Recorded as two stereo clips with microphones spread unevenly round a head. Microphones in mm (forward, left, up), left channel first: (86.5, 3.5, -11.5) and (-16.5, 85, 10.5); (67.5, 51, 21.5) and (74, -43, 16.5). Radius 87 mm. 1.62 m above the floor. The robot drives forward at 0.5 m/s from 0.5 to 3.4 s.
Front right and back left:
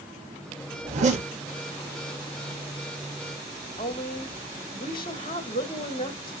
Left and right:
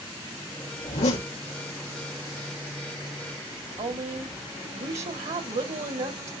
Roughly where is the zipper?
Left.